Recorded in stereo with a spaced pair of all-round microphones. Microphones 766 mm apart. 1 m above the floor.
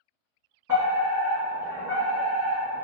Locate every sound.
0.7 s a fire alarm: 20° right (ahead or behind), 1.4 m